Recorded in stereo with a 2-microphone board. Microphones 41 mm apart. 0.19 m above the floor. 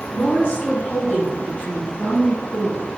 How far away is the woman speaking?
About 1.3 m.